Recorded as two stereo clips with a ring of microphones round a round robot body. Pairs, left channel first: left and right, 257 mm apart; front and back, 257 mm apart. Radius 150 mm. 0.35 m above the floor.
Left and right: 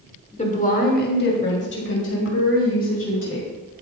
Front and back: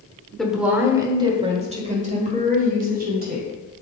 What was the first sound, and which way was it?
A woman speaking, 85° left.